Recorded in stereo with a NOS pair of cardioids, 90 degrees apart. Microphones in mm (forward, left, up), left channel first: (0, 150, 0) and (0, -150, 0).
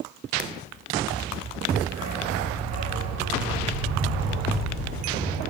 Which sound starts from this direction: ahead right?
A dog barking, at 1.9 s.